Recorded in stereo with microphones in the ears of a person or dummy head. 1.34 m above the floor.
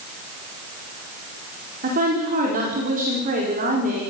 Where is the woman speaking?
45° right (ahead or behind), 4.5 m.